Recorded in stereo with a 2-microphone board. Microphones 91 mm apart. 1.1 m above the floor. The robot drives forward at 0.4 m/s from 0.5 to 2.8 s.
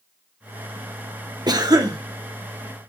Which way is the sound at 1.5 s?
50° right (ahead or behind).